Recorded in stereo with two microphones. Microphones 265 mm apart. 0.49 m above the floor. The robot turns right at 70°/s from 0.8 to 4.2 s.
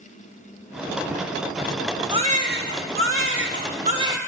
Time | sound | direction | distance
2.1 | a baby crying | 160° right | 0.7 m